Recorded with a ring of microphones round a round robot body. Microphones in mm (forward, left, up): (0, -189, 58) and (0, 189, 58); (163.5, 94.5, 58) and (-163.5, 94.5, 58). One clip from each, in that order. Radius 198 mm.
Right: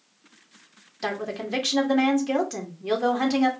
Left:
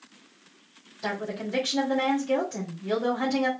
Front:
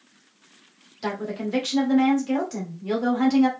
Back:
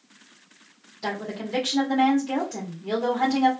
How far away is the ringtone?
I don't hear a ringtone.